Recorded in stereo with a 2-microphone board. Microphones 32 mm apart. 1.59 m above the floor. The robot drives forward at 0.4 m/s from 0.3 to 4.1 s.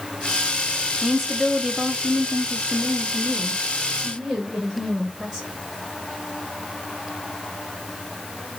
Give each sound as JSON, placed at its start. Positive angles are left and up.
{"t": 1.0, "sound": "a woman speaking", "side_deg": -10, "distance_m": 0.6}